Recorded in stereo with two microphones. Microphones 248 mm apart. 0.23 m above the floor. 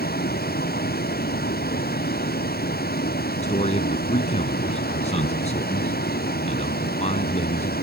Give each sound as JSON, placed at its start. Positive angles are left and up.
{"t": 0.0, "sound": "a vehicle", "side_deg": 40}
{"t": 3.4, "sound": "a man speaking", "side_deg": 25}